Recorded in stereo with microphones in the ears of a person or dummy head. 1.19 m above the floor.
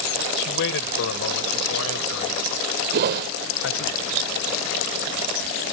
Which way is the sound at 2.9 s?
50° right (ahead or behind).